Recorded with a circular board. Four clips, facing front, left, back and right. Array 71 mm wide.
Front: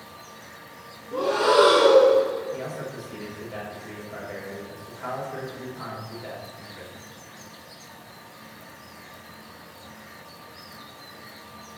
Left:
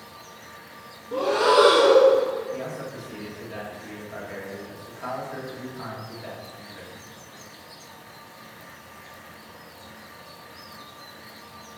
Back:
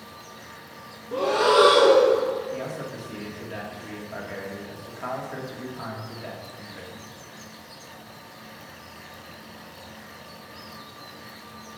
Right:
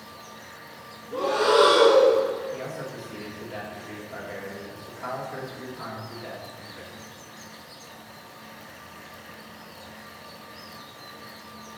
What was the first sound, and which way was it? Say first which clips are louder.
Breathing: left 2 dB, even; 145° left.